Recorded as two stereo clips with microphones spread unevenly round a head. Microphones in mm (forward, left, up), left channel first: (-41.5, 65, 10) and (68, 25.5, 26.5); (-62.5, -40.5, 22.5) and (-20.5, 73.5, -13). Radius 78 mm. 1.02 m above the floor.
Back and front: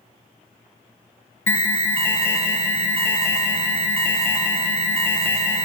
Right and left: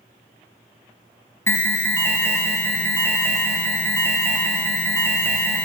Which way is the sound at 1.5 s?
170° left.